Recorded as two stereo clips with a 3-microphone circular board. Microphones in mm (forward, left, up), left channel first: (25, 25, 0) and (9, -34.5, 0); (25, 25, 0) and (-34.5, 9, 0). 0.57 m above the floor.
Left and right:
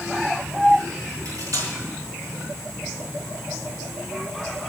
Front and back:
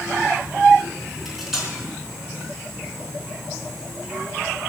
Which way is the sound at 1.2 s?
80° right.